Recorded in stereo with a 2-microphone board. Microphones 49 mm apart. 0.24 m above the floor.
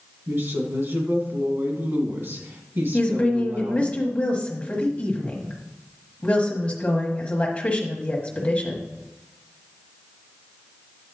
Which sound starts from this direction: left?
A woman speaking, at 2.9 s.